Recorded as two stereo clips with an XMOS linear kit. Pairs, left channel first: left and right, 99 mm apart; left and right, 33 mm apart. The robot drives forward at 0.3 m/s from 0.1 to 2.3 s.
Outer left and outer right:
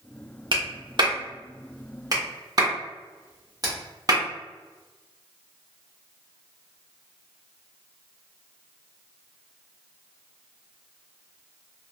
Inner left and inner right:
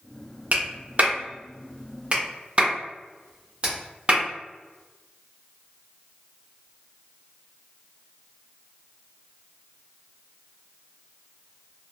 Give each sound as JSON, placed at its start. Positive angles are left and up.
{"t": 0.5, "sound": "a clap", "side_deg": -50, "distance_m": 0.9}